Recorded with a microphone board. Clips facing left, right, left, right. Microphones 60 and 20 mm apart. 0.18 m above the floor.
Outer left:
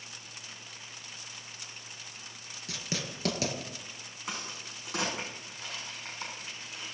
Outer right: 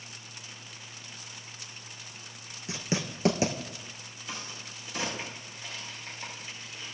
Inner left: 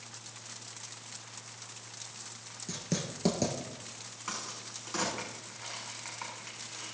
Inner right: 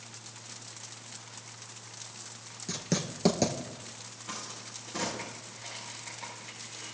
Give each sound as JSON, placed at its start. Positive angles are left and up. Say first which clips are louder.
{"t": 2.7, "sound": "writing", "louder": "outer right 5 dB, inner right 3 dB", "side_deg": -25, "distance_m": 1.6}
{"t": 4.3, "sound": "a crack", "louder": "outer left 1 dB, inner left 2 dB", "side_deg": 85, "distance_m": 7.0}